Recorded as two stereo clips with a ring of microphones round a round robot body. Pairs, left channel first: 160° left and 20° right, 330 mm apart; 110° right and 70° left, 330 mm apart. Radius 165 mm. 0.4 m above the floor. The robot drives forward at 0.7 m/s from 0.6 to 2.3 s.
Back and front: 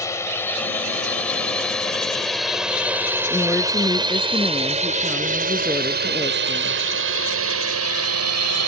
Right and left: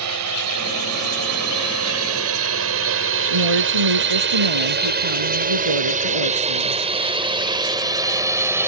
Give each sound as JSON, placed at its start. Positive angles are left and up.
{"t": 0.0, "sound": "a drone", "azimuth_deg": 80}
{"t": 3.3, "sound": "a woman speaking", "azimuth_deg": 75}